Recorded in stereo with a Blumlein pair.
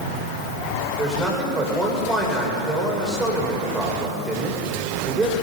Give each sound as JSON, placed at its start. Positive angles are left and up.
{"t": 1.0, "sound": "a man speaking", "azimuth_deg": -10, "distance_m": 7.5}